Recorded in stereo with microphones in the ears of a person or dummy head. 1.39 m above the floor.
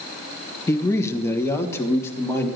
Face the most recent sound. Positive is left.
turn(degrees=15)  # may be behind; listen again after turning